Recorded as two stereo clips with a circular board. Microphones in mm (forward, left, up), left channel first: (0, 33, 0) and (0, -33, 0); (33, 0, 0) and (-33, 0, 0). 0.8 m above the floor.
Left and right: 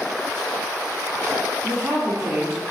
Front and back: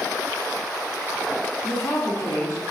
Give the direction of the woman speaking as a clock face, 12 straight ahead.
1 o'clock.